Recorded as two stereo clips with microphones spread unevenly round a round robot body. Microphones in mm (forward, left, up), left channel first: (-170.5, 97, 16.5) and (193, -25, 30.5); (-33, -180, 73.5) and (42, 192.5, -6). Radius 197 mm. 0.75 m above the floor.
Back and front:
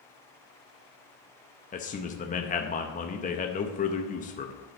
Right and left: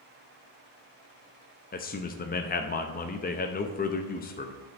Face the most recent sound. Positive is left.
turn(degrees=-170)